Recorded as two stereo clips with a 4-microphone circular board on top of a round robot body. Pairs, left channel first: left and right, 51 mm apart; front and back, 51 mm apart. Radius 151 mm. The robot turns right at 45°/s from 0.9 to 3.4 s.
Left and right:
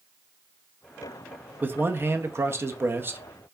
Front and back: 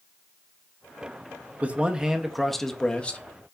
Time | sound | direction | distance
1.6 | a man speaking | 125° right | 0.8 m